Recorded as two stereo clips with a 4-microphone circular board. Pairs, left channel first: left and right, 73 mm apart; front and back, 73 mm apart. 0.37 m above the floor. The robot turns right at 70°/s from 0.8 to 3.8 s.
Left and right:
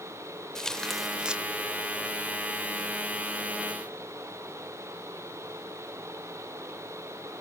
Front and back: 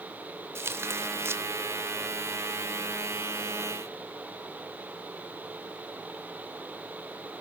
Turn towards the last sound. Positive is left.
turn(degrees=15)